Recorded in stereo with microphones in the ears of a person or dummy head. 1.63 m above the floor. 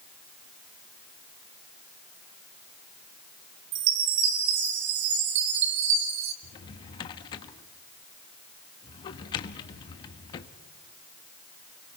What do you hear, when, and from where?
3.7 s a chime: 60° right (ahead or behind), 1.6 m
6.4 s a drawer: 30° left (ahead or behind), 1.1 m